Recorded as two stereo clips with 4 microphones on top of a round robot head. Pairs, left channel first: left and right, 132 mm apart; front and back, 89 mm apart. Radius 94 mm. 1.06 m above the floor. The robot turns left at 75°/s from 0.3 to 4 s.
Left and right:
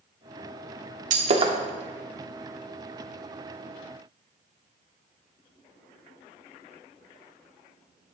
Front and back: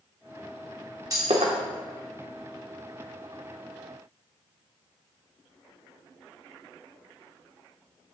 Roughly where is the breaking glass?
Right.